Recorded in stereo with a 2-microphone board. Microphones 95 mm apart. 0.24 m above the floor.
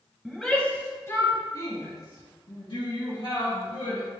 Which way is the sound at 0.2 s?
5° right (ahead or behind).